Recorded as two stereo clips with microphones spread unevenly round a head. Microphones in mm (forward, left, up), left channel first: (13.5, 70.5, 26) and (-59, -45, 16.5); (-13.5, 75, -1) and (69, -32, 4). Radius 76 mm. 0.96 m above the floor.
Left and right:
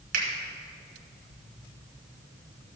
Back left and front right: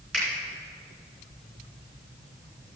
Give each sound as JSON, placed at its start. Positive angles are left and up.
{"t": 0.1, "sound": "a finger snap", "azimuth_deg": -145, "distance_m": 3.0}